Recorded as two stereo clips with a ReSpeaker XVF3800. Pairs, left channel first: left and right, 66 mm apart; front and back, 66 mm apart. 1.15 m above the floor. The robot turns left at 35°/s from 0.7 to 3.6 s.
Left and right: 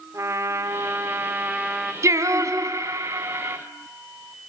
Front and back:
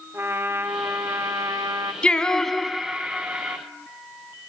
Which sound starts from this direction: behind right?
A trumpet, at 0.1 s.